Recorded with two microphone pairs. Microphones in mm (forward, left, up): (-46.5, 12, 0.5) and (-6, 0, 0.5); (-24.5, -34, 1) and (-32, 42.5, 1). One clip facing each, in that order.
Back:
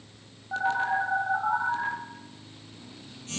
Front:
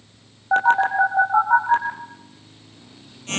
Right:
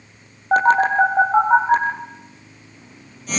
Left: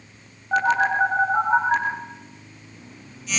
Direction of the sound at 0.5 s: 45° right.